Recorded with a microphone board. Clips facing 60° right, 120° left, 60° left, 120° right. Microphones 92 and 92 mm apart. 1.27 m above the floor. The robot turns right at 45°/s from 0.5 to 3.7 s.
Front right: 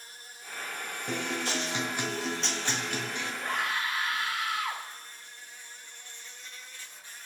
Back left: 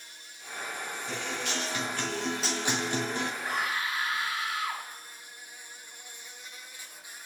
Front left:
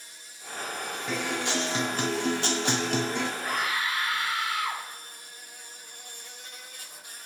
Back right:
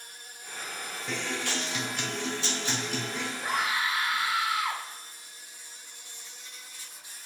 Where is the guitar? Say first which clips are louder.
Front right 4 dB, front left 3 dB; 25° right, 1.6 m; by 3.3 s 75° left, 1.6 m.